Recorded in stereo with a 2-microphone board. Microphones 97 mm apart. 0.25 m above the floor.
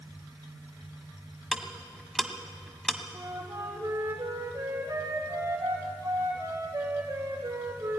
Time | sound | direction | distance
1.5 | ticking | 5° left (ahead or behind) | 1.1 m
3.1 | a flute | 35° right (ahead or behind) | 3 m